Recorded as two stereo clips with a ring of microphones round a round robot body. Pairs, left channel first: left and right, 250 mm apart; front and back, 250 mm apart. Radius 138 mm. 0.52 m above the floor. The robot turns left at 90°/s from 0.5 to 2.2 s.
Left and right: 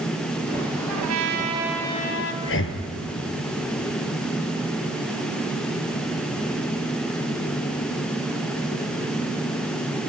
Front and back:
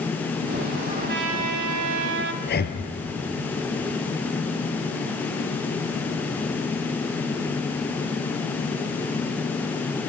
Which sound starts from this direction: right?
A trumpet, at 0.9 s.